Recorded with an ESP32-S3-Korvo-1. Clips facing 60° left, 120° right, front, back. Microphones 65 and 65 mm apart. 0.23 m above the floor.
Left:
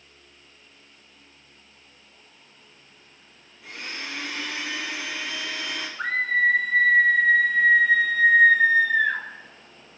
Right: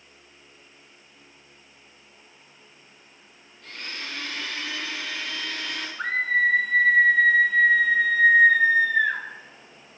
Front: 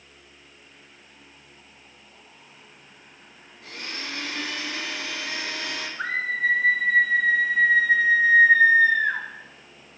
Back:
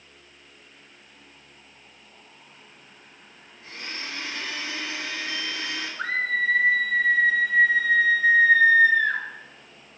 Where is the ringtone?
I don't hear a ringtone.